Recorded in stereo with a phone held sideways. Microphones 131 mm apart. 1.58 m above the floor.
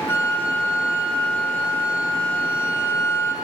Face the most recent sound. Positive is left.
turn(degrees=20)  # may be behind; listen again after turning